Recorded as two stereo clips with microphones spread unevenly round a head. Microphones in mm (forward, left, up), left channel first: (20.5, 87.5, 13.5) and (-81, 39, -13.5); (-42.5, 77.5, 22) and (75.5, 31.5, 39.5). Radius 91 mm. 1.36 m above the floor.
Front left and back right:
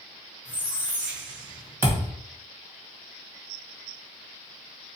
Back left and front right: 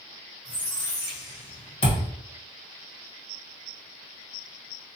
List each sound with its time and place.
0.5 s a squeak: 115° left, 1.2 m
1.8 s a thud: 135° left, 1.4 m